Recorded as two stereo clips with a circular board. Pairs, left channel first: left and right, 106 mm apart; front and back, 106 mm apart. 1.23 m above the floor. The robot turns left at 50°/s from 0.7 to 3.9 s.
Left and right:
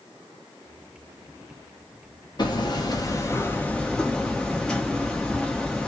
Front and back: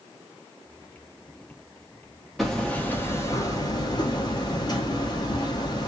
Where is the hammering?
90° left, 0.8 m; by 5.9 s 10° left, 0.8 m.